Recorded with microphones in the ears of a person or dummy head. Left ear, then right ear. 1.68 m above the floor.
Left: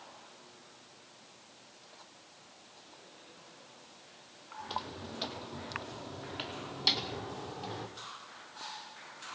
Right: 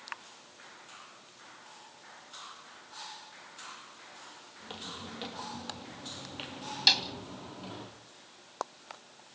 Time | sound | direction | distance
4.6 | footsteps | 20° right (ahead or behind) | 2.5 m
6.9 | a snare drum | 25° right (ahead or behind) | 1.7 m